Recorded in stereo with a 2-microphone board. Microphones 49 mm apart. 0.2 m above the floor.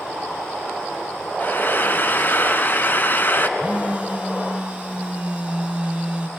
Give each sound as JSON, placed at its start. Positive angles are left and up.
{"t": 1.4, "sound": "frying", "side_deg": 40, "distance_m": 1.1}
{"t": 3.6, "sound": "a phone buzzing", "side_deg": -25, "distance_m": 1.5}